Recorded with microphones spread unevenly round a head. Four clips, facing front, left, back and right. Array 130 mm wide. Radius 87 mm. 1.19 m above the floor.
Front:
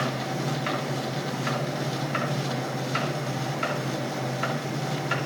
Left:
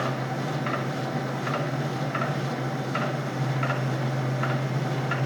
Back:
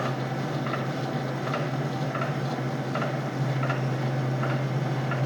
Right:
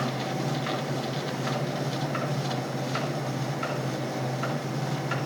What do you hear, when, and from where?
Only background noise.